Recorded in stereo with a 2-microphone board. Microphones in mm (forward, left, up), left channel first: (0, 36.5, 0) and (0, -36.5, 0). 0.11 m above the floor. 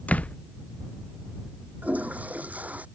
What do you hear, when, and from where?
0.1 s a door slam: 20° left (ahead or behind)
1.8 s a toilet flushing: 20° right (ahead or behind)